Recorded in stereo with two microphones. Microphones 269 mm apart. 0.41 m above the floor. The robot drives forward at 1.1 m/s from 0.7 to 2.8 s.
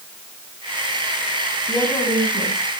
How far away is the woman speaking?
About 3.5 m.